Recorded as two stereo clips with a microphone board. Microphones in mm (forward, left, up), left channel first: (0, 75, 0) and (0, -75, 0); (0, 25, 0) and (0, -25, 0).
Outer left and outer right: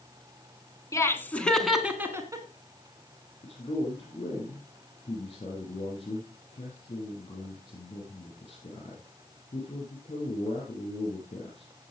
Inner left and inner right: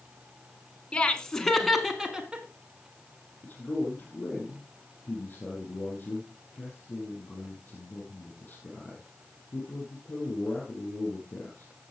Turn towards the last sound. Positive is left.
turn(degrees=35)  # may be behind; listen again after turning